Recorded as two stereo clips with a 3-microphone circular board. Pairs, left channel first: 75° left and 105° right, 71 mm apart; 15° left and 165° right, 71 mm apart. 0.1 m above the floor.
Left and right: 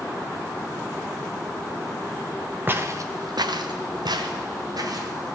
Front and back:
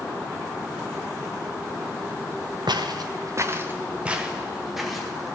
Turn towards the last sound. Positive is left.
turn(degrees=-70)